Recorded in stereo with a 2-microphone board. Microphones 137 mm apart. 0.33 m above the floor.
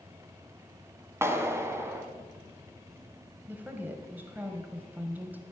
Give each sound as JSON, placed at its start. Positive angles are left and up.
{"t": 1.2, "sound": "a clap", "side_deg": -20, "distance_m": 1.9}
{"t": 3.5, "sound": "a woman speaking", "side_deg": -15, "distance_m": 1.6}